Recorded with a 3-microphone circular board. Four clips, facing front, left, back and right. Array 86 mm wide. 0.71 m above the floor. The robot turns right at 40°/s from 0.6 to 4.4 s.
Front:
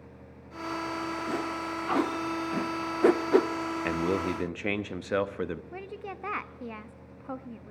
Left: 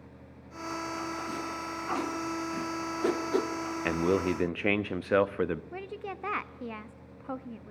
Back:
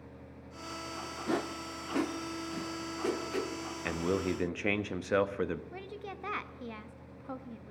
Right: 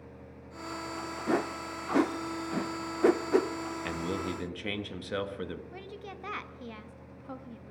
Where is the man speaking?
60° left, 0.6 m; by 5.6 s 85° left, 0.6 m.